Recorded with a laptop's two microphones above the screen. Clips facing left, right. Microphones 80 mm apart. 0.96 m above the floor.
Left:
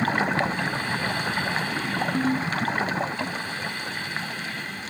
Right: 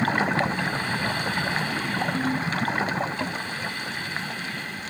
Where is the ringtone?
25° left (ahead or behind).